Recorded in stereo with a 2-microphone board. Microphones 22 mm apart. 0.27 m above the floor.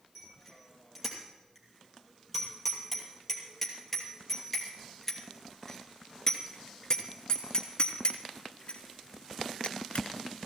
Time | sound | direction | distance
0.1 | a bicycle bell | centre (ahead or behind) | 5.5 m